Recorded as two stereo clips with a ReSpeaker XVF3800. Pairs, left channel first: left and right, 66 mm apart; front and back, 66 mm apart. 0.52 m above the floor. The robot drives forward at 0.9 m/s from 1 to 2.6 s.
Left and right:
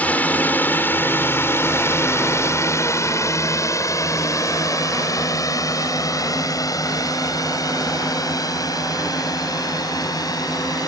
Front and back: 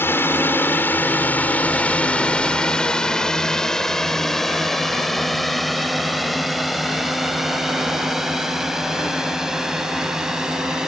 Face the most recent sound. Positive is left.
turn(degrees=100)